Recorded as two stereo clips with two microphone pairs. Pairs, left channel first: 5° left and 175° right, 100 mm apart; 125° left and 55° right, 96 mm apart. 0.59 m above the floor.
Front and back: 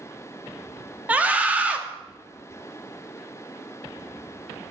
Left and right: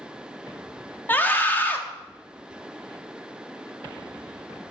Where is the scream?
155° left, 0.6 m.